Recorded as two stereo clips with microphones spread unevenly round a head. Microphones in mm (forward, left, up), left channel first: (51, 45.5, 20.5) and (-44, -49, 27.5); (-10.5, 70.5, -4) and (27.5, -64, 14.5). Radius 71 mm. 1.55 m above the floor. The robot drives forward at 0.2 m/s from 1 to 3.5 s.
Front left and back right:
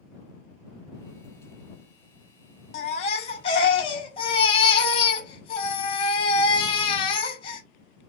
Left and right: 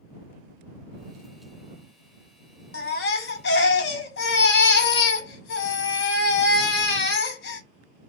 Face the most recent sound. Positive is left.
turn(degrees=100)